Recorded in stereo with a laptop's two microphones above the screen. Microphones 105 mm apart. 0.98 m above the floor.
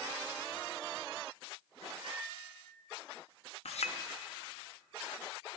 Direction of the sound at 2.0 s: 35° right (ahead or behind).